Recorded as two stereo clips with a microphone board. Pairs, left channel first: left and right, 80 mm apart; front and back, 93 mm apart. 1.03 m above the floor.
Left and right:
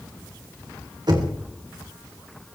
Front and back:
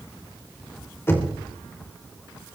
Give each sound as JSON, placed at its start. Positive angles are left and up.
{"t": 1.1, "sound": "knocking", "azimuth_deg": -65, "distance_m": 3.5}